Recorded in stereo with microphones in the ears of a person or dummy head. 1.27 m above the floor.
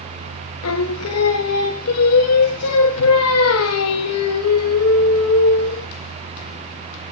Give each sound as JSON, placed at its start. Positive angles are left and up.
{"t": 0.6, "sound": "singing", "side_deg": 90, "distance_m": 0.8}